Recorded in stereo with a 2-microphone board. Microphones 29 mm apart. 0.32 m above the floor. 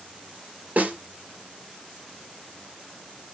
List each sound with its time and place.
0.8 s a snare drum: 55° right (ahead or behind), 3 m